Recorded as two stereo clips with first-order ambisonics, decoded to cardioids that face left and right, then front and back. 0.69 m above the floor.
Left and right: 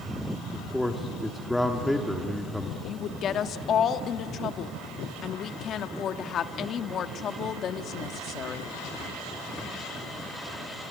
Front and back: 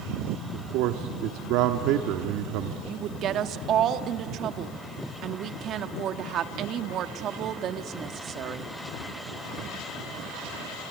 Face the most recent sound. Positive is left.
turn(degrees=135)